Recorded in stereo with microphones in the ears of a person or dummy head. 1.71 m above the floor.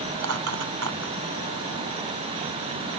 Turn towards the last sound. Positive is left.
turn(degrees=-80)